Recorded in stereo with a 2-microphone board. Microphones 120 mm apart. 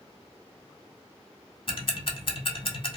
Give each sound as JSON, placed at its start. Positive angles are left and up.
{"t": 1.7, "sound": "ticking", "side_deg": 50, "distance_m": 0.5}